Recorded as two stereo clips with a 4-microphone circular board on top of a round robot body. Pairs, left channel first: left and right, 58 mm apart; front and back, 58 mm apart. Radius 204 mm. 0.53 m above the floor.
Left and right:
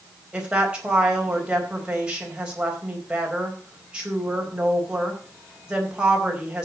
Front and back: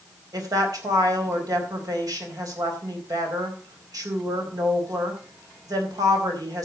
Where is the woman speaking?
165° right, 4 m.